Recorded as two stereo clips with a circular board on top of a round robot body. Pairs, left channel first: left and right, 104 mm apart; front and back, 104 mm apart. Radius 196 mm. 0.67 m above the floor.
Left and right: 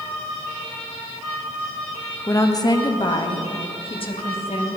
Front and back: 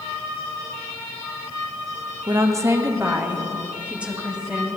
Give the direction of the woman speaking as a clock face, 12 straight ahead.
7 o'clock.